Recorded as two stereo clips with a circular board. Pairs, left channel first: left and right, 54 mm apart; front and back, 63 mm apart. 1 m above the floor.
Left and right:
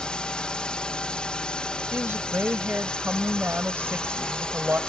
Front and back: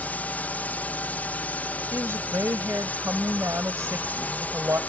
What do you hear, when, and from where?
0.0 s a drone: 35° left
1.9 s a woman speaking: 140° right